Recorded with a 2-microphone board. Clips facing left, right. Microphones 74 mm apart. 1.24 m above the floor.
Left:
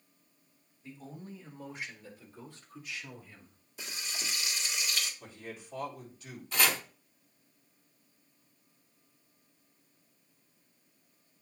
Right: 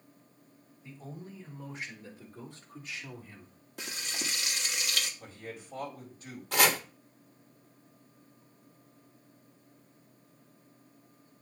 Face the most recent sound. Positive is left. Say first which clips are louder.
# right 4 dB
turn(degrees=-70)  # may be behind; listen again after turning